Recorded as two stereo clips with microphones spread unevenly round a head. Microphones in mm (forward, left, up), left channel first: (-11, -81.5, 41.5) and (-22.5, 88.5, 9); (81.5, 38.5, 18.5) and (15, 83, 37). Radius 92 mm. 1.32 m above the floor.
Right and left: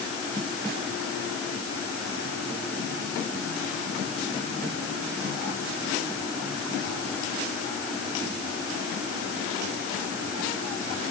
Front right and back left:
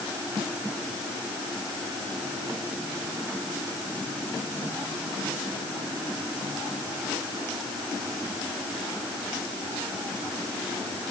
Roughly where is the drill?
I don't hear a drill.